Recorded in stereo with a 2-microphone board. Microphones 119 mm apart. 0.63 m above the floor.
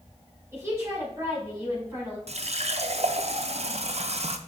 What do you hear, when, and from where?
0.5 s a woman speaking: 20° right (ahead or behind), 4.5 m
2.3 s a running tap: 65° right (ahead or behind), 0.6 m